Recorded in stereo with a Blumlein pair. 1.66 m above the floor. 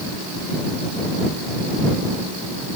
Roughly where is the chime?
I don't hear a chime.